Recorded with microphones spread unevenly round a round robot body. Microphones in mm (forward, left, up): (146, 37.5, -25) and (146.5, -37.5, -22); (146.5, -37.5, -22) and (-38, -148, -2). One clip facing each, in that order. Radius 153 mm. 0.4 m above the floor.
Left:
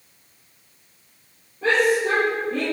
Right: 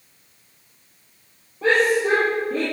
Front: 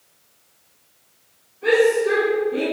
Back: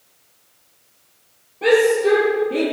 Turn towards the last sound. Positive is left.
turn(degrees=-140)